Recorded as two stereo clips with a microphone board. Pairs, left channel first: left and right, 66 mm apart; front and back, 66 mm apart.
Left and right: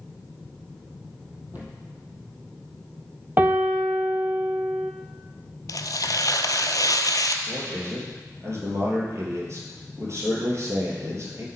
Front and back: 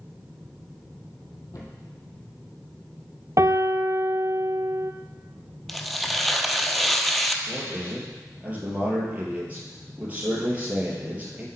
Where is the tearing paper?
90° left, 0.6 m.